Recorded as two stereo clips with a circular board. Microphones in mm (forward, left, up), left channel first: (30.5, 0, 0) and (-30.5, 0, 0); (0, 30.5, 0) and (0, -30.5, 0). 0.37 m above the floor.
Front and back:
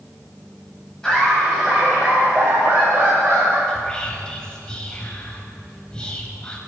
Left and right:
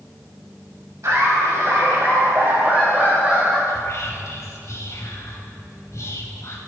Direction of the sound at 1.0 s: 75° right.